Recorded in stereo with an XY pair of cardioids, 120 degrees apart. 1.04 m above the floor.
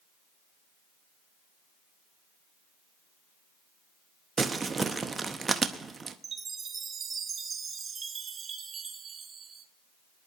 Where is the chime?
35° right, 1.4 m.